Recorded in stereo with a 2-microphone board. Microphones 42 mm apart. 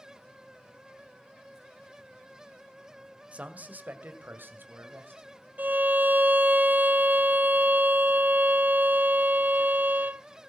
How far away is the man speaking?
About 1.6 m.